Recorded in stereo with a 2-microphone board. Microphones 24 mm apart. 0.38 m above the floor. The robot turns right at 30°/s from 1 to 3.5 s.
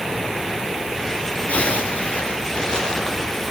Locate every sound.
1.5 s a zipper: 110° left, 3.5 m; by 3.5 s 170° left, 3.5 m